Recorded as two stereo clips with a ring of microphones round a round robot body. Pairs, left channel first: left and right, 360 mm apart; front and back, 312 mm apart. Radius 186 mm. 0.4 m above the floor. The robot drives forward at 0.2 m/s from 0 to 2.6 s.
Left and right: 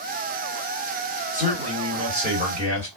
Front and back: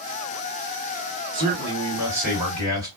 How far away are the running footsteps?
I don't hear running footsteps.